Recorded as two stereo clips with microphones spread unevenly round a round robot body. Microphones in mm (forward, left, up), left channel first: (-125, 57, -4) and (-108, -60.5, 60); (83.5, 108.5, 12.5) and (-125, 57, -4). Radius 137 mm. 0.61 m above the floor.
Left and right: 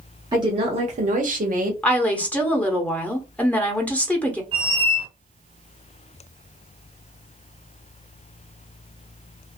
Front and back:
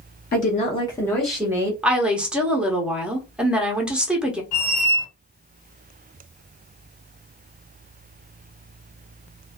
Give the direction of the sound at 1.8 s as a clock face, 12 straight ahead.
8 o'clock.